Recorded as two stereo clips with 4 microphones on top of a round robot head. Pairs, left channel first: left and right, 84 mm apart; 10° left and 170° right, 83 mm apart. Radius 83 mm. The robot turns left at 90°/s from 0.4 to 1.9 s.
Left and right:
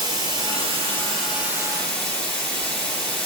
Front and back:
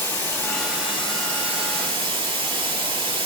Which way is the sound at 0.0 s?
60° right.